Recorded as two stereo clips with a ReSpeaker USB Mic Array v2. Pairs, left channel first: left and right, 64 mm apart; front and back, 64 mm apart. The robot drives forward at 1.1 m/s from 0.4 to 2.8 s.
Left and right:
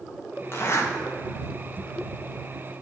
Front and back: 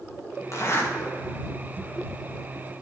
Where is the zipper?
35° left, 1.3 m; by 0.9 s 55° left, 1.0 m.